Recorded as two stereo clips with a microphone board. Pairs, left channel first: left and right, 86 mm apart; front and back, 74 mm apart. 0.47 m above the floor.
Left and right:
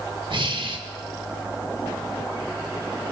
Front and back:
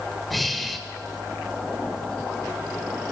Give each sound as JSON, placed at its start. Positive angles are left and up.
{"t": 0.3, "sound": "breathing", "azimuth_deg": -90, "distance_m": 0.7}